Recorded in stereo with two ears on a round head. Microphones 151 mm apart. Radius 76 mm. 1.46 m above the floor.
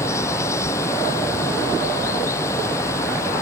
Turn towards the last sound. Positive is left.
turn(degrees=15)  # may be behind; listen again after turning